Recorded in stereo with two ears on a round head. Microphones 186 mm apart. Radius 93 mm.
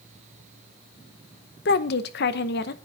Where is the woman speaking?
55° left (ahead or behind), 0.9 m.